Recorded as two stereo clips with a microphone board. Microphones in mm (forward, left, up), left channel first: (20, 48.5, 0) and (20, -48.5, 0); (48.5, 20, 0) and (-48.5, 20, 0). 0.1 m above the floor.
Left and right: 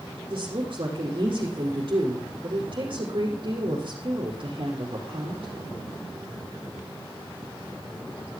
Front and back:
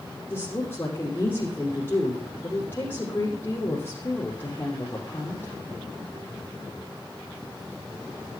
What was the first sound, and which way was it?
A woman speaking, 65° right.